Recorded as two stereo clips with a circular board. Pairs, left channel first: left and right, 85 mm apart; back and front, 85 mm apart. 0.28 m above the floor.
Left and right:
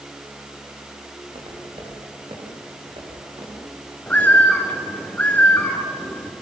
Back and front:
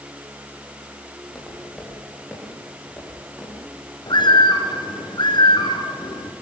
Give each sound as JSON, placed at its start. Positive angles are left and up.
{"t": 1.2, "sound": "footsteps", "azimuth_deg": -90, "distance_m": 9.0}
{"t": 4.1, "sound": "a bird", "azimuth_deg": 160, "distance_m": 2.5}